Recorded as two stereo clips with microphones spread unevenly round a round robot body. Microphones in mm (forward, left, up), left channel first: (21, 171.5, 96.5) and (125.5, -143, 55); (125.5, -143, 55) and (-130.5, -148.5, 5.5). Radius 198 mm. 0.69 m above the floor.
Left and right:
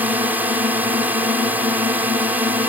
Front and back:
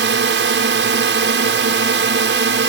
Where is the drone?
150° right.